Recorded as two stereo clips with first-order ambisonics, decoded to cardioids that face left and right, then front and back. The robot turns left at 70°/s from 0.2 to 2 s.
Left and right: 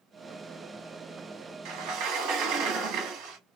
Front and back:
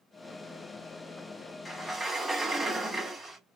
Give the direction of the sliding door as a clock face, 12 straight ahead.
3 o'clock.